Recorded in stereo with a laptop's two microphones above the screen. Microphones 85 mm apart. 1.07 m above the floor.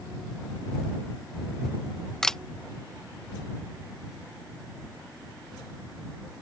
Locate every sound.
2.2 s a camera shutter: 5° left (ahead or behind)